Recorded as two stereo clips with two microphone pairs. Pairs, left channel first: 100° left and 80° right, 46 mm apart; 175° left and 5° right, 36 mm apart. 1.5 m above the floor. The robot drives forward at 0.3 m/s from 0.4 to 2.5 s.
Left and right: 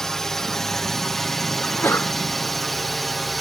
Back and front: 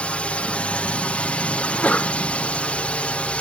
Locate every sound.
0.0 s a drone: 170° left; by 3.4 s 175° right
1.6 s a sneeze: 125° left; by 2.2 s 130° left